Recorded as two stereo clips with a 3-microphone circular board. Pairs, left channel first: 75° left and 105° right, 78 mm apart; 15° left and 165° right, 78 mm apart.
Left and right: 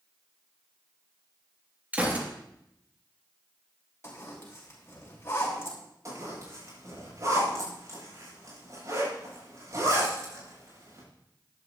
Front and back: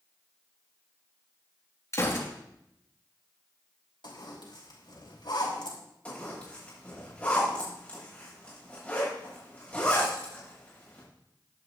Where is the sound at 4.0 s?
20° left, 5 m.